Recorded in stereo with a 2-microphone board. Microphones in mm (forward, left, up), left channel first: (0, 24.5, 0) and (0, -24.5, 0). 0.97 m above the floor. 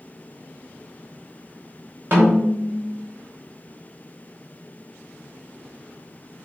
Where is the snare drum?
40° right (ahead or behind), 3 m.